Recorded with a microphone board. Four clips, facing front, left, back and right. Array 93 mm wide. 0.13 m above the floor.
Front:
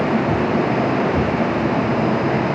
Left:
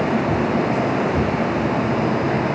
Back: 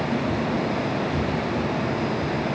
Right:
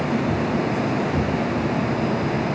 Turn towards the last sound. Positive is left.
No sound to turn to.